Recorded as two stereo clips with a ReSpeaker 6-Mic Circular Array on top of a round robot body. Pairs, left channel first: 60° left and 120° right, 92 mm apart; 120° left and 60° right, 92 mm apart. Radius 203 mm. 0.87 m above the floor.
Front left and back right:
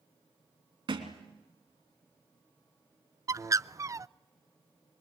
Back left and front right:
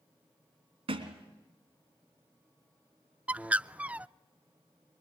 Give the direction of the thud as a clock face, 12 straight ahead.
3 o'clock.